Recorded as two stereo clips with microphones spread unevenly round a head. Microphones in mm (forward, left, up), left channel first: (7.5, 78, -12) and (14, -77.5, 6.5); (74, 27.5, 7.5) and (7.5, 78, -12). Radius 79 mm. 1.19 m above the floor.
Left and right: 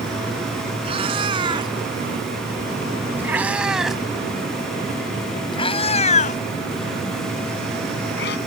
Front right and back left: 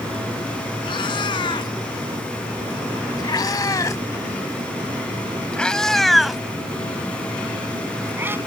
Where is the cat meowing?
35° right; by 8.4 s 75° left.